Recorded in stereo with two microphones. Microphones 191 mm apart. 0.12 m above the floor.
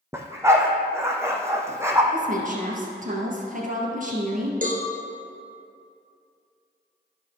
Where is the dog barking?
15° right (ahead or behind), 1.3 m.